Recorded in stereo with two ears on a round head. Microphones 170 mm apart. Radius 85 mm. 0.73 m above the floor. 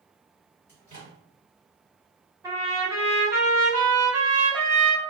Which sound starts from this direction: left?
A microwave, at 0.7 s.